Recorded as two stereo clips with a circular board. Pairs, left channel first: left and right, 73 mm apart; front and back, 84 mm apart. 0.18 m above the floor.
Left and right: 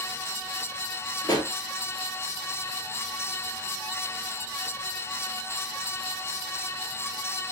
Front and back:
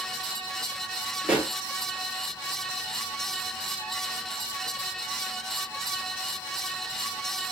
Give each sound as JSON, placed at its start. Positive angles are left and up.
{"t": 1.2, "sound": "a pop", "azimuth_deg": 105, "distance_m": 1.7}